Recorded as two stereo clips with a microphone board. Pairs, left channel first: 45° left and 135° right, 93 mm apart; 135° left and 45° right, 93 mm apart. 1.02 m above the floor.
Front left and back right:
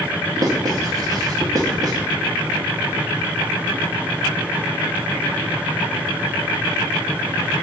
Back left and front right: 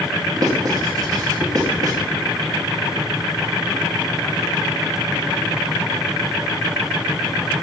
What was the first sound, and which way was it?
Writing, 90° right.